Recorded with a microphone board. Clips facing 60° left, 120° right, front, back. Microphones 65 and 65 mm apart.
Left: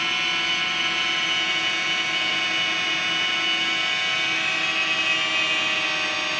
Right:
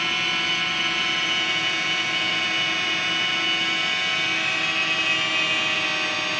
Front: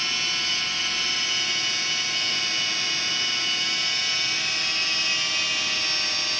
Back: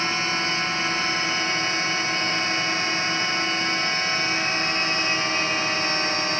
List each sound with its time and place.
0.0 s a drone: 150° left